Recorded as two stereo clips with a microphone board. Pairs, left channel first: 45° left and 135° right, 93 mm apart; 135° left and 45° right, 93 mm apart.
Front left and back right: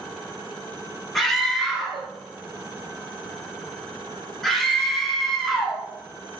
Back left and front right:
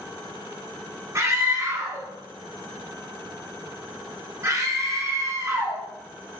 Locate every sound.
1.1 s a scream: 45° right, 1.0 m